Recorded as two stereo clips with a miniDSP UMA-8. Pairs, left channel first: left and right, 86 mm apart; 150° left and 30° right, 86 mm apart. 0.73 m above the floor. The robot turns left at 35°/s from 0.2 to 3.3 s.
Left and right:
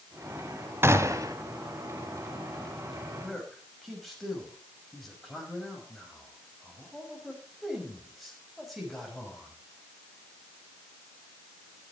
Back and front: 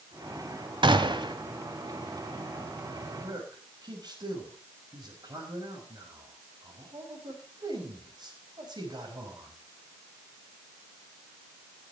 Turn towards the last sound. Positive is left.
turn(degrees=0)